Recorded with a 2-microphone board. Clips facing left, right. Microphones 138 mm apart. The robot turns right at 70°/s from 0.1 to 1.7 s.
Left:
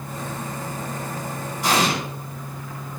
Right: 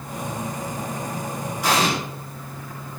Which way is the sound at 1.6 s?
Centre (ahead or behind).